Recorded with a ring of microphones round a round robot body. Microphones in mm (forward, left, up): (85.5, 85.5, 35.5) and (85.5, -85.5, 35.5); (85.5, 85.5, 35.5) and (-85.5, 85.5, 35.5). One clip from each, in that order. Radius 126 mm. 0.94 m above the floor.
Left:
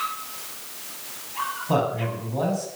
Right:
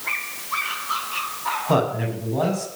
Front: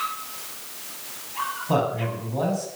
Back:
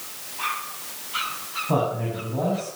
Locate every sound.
1.7 s a man speaking: 25° right, 7.5 m